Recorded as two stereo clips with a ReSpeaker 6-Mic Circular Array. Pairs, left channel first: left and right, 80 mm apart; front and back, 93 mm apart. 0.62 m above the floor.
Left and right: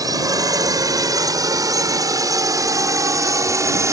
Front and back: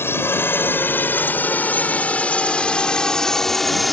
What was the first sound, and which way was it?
A drone, 60° right.